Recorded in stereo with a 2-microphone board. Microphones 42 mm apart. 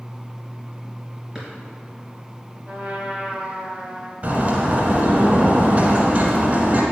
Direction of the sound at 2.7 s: 35° right (ahead or behind).